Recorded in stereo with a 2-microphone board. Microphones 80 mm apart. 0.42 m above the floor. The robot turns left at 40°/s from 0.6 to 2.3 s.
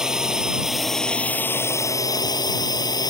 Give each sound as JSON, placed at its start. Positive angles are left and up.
{"t": 0.0, "sound": "a drone", "side_deg": -10}